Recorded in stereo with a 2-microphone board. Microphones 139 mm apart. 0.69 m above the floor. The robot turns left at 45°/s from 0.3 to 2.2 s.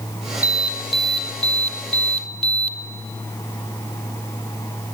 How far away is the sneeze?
No sneeze in this recording.